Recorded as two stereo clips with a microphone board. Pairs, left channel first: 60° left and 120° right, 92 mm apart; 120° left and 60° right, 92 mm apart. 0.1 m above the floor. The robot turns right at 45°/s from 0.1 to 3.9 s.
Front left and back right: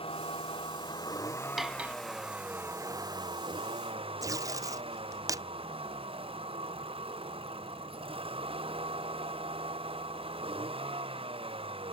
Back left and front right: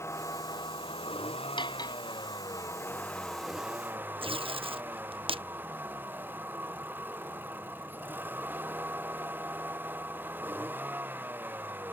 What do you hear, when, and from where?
0.0 s a vehicle: 60° left; by 11.9 s 130° right
1.6 s cutlery clinking: 150° left; by 2.0 s 170° left
4.2 s tape being pulled: 70° right